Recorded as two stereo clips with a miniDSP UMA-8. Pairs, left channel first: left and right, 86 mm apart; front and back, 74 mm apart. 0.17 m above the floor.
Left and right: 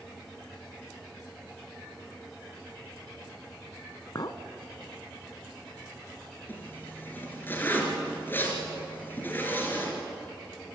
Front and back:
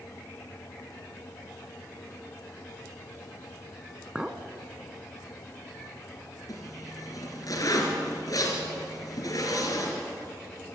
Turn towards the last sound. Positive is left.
turn(degrees=25)